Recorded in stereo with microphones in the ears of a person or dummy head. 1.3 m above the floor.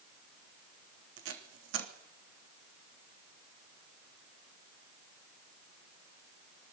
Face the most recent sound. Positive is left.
turn(degrees=-70)  # may be behind; listen again after turning